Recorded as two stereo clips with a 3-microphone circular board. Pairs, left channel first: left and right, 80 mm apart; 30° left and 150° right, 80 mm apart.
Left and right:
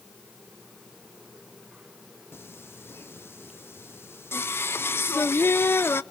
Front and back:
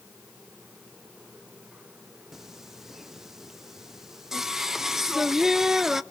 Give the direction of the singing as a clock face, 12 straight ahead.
8 o'clock.